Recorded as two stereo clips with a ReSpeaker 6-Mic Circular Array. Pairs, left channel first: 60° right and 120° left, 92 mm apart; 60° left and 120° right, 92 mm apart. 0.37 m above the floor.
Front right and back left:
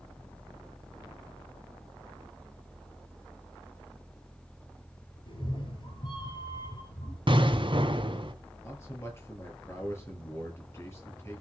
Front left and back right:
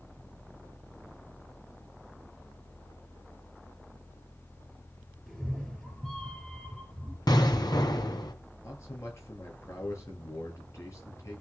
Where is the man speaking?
Straight ahead, 9 m.